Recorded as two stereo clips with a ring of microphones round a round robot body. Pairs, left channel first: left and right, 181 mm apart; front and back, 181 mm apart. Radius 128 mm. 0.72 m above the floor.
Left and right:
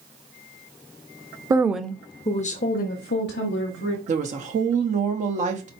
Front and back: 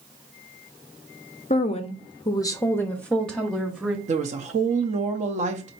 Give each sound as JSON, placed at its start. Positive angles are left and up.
{"t": 1.5, "sound": "a woman speaking", "azimuth_deg": -30, "distance_m": 0.6}
{"t": 4.1, "sound": "a woman speaking", "azimuth_deg": -135, "distance_m": 0.7}